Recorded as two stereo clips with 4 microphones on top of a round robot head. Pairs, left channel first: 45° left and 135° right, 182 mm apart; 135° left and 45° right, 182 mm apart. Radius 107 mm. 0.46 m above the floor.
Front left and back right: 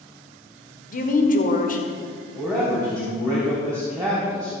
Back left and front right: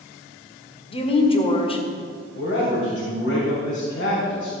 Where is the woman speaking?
80° left, 1.7 m.